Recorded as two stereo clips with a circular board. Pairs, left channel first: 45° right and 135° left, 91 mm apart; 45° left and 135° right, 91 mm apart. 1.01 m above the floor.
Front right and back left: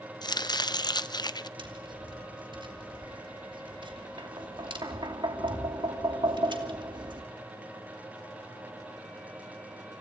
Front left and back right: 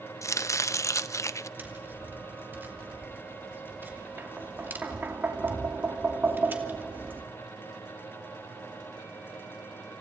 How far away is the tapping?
About 2.5 m.